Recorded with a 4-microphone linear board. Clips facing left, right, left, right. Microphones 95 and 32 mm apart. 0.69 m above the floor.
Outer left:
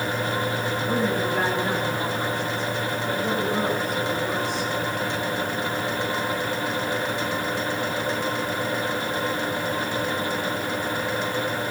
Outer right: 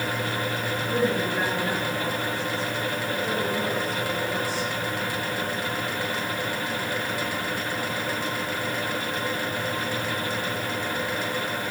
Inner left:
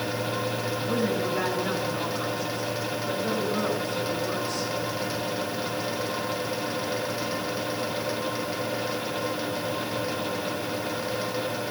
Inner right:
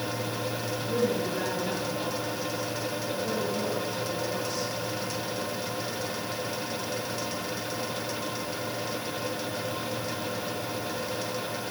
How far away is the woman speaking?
About 8 m.